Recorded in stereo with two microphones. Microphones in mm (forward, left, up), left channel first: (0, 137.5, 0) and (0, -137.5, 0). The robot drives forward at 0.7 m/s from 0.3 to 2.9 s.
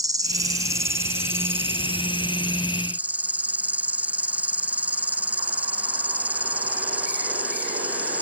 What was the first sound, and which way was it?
An insect, 15° right (ahead or behind).